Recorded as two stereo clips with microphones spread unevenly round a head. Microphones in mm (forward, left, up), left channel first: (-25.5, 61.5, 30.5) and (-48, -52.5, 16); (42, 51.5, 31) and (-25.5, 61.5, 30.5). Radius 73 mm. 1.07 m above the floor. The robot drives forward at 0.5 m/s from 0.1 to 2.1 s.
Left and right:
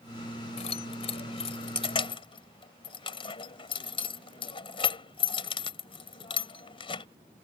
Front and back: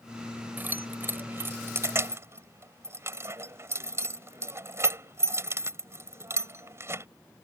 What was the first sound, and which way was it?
Keys jangling, 110° left.